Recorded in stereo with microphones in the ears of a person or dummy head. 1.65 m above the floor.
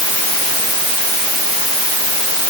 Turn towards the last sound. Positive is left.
No sound to turn to.